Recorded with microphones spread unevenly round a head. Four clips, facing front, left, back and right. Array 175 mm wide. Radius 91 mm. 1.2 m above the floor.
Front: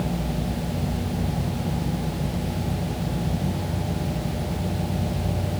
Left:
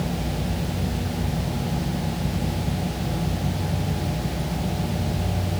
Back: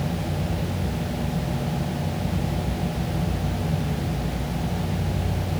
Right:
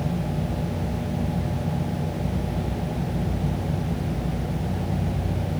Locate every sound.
Only background noise.